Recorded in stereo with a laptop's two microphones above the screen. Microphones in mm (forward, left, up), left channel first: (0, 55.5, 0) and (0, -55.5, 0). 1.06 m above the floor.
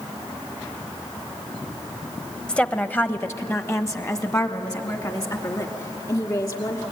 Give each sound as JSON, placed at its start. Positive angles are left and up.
{"t": 2.5, "sound": "a woman speaking", "side_deg": 10, "distance_m": 0.9}